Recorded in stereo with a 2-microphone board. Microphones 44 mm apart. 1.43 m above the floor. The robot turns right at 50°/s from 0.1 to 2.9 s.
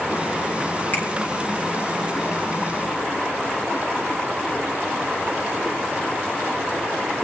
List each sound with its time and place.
0.9 s a finger snap: 40° left (ahead or behind), 3.5 m; by 1.0 s 35° left (ahead or behind), 3.5 m